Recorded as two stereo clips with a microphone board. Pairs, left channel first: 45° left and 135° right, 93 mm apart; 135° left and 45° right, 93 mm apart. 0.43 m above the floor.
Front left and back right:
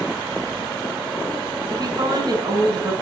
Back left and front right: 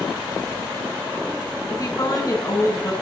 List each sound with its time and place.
1.7 s a woman speaking: 175° right, 4.5 m